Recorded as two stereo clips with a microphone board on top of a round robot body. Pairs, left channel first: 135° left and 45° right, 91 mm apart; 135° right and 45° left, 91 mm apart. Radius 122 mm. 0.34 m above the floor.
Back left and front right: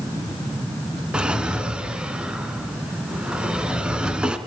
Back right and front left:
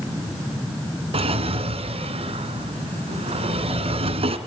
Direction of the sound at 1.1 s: 35° left.